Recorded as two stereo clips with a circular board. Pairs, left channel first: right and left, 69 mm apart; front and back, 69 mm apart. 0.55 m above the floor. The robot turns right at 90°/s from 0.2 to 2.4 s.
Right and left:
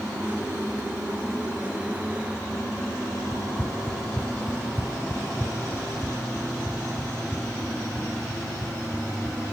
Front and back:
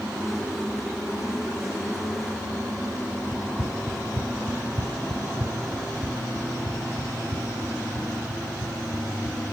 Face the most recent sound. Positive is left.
turn(degrees=165)